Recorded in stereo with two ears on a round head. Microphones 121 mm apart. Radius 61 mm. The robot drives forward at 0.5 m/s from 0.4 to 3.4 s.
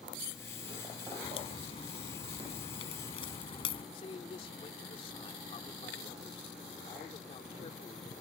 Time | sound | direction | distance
1.2 | a crack | 45° left (ahead or behind) | ?
3.9 | a man speaking | 45° left (ahead or behind) | ?